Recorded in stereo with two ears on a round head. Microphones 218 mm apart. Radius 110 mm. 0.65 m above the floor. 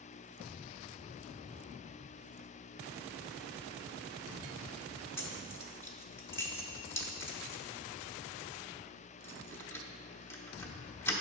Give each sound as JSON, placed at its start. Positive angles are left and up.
{"t": 5.2, "sound": "keys jangling", "side_deg": 10, "distance_m": 0.8}